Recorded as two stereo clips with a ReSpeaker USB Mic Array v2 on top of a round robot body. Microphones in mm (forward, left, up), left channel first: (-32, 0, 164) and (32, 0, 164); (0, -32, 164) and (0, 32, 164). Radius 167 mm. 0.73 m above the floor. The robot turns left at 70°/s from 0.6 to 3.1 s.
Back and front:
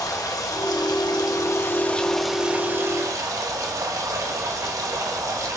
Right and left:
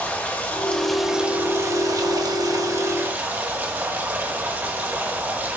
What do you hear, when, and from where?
0.0 s running water: 155° right, 1.4 m; by 5.6 s 30° left, 1.4 m